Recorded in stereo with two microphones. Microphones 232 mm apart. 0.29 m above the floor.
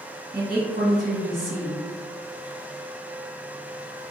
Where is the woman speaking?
50° right (ahead or behind), 1.5 m.